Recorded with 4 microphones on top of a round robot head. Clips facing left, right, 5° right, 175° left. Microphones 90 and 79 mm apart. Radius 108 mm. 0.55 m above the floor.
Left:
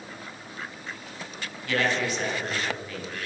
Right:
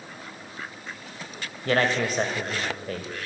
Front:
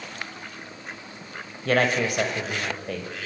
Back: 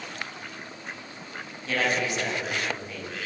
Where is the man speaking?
40° right, 3 m.